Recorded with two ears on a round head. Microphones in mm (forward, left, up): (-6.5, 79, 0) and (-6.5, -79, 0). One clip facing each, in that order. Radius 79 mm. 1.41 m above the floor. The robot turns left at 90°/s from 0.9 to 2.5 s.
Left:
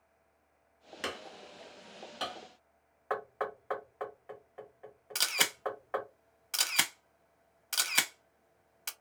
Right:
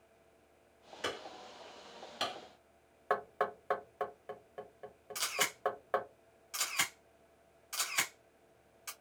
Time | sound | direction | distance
1.0 | hammering | 70° left (ahead or behind) | 1.8 m
3.1 | knocking | 45° right (ahead or behind) | 1.2 m
5.2 | a camera shutter | 70° left (ahead or behind) | 0.7 m